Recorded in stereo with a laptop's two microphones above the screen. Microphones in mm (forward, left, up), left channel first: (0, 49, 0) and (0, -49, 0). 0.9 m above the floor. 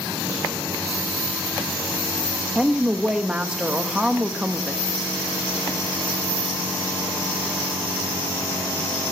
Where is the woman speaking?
10° right (ahead or behind), 1.0 m.